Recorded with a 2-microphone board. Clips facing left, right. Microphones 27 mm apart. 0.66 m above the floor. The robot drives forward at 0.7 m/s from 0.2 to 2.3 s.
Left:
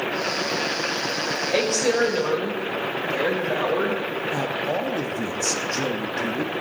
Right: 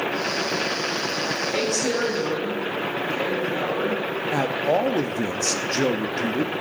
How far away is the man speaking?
About 0.6 m.